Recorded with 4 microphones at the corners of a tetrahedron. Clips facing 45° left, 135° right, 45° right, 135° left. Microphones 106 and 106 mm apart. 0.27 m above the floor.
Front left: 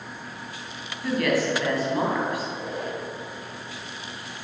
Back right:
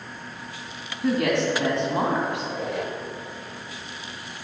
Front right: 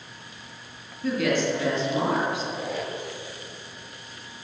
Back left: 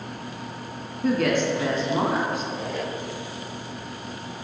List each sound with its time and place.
1.0 s a woman speaking: 165° left, 2.5 m
2.4 s a squeak: 135° right, 1.3 m